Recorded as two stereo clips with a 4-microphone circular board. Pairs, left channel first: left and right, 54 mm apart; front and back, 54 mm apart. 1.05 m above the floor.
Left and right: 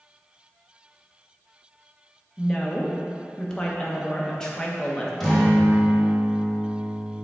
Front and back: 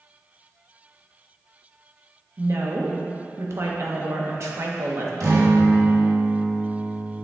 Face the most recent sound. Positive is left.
turn(degrees=175)